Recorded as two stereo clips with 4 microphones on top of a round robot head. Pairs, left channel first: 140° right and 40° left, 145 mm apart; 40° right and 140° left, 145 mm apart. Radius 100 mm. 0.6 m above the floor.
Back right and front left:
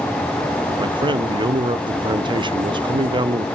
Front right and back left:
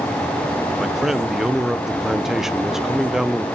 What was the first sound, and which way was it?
A man speaking, 55° left.